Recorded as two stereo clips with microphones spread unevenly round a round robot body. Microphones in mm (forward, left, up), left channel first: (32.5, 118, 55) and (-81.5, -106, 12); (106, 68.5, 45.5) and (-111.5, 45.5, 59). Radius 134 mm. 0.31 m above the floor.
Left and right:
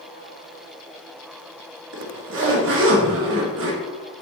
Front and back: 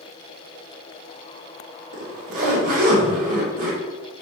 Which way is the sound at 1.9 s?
120° right.